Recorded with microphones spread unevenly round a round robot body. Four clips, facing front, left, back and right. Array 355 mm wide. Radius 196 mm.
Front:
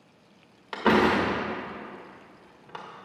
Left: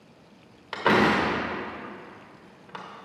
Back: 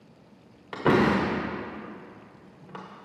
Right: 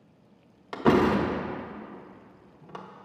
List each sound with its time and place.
0.7 s a door slam: 125° right, 0.8 m